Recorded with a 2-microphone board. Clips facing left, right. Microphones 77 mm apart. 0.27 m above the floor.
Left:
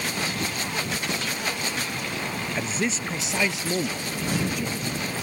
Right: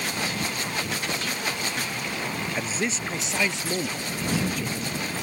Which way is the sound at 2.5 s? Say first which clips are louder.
Left 3 dB; 5° right (ahead or behind).